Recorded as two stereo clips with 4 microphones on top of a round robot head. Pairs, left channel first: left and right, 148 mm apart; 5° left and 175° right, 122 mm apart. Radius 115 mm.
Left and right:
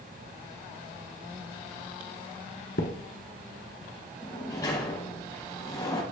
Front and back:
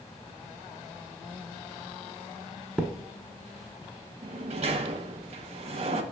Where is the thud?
110° left, 0.9 m.